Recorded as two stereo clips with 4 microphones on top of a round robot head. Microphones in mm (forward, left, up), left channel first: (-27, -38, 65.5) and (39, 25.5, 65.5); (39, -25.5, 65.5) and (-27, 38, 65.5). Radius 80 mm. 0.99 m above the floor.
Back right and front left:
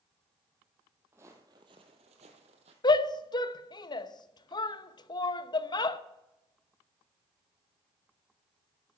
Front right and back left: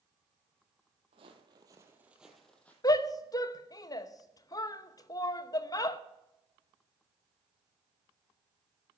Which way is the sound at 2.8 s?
95° right.